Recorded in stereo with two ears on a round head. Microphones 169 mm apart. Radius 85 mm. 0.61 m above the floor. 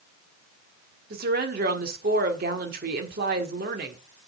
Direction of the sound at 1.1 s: 55° right (ahead or behind).